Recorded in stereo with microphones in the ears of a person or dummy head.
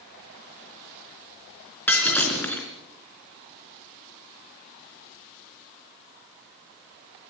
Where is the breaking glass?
10° left (ahead or behind), 3.5 m.